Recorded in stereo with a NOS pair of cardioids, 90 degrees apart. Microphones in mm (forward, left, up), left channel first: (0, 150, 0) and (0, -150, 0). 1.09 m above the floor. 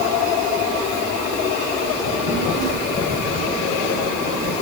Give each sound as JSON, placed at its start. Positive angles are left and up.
{"t": 2.0, "sound": "a child speaking", "azimuth_deg": -60, "distance_m": 9.5}